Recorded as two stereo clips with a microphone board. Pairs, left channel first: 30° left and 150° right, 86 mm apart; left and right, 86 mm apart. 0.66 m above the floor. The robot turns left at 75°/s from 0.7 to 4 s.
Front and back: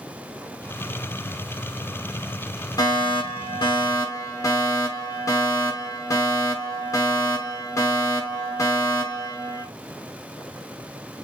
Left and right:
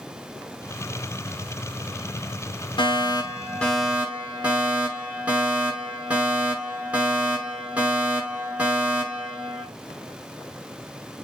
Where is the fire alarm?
75° left, 6 m; by 9.7 s 20° right, 6 m.